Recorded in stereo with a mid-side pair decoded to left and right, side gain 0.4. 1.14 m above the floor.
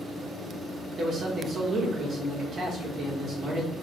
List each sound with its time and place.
1.0 s a man speaking: 55° right, 1.5 m